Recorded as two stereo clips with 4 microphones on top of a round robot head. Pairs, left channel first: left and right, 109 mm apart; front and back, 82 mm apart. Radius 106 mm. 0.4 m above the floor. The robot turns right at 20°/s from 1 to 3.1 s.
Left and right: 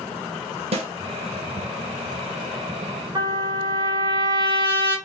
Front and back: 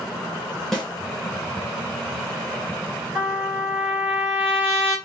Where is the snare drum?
85° right, 1.5 m.